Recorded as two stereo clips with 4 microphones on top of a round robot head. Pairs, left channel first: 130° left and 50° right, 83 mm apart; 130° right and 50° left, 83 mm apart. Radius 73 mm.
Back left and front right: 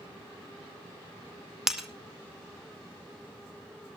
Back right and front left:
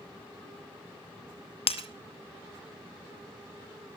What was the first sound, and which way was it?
Breaking glass, 135° right.